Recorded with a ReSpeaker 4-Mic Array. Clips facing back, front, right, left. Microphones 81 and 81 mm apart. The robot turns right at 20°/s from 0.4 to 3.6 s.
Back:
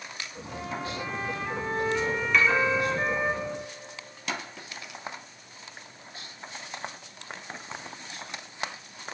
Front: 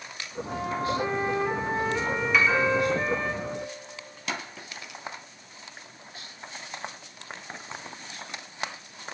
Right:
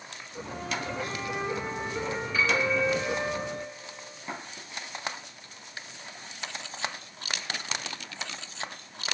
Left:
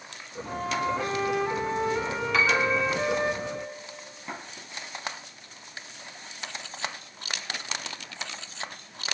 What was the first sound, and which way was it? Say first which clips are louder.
A flute: front 6 dB, left 6 dB; 50° left.